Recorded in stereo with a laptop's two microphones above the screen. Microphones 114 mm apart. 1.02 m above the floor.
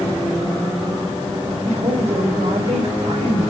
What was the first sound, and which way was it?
A woman speaking, 65° right (ahead or behind).